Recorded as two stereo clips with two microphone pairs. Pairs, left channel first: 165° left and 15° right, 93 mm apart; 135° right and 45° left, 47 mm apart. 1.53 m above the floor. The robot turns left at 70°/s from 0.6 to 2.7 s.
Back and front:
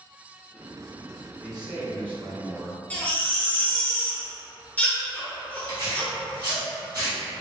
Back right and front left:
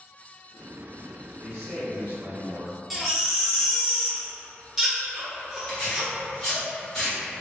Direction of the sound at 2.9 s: 130° left.